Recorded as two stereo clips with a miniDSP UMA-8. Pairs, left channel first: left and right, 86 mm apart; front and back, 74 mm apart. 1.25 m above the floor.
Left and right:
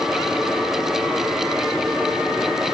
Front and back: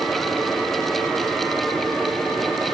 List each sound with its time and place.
Only background noise.